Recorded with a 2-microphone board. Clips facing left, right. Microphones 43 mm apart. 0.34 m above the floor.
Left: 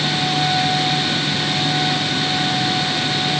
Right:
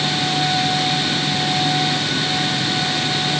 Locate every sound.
Only background noise.